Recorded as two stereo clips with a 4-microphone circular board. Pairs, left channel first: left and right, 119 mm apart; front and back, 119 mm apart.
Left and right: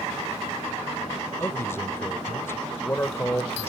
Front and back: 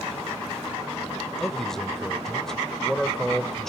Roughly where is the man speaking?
Left.